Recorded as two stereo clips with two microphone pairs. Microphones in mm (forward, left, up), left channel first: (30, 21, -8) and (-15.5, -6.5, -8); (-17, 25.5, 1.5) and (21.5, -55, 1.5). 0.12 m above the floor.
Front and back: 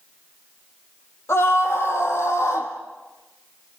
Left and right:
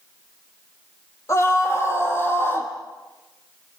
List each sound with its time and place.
1.3 s a scream: 60° left, 3.5 m; by 2.7 s 55° left, 4 m